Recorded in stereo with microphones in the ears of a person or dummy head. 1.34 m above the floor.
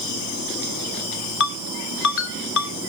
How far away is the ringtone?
About 2 m.